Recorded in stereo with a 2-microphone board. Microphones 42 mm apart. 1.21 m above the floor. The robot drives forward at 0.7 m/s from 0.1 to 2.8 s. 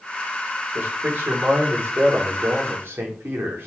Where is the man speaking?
55° right (ahead or behind), 5 m; by 3.7 s 70° right (ahead or behind), 4.5 m.